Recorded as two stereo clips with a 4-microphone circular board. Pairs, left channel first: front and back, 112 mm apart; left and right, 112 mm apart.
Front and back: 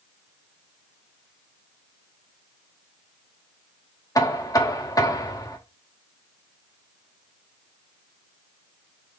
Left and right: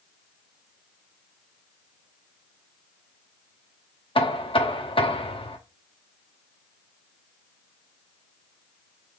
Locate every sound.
4.2 s knocking: 55° left, 0.8 m